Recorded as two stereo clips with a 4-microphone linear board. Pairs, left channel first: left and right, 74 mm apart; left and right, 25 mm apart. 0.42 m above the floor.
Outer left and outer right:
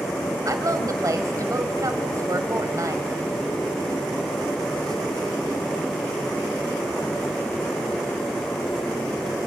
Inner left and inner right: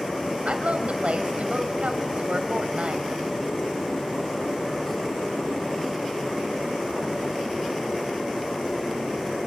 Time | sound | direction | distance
0.5 | a woman speaking | 55° right (ahead or behind) | 2.5 m